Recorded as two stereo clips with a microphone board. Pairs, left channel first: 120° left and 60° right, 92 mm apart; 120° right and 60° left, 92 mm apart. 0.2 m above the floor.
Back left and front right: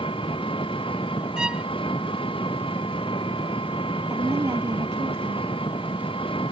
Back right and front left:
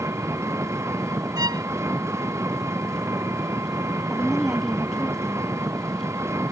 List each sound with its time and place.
0.0 s an engine running: 115° left
1.4 s a violin: 20° left
4.1 s a woman speaking: 30° right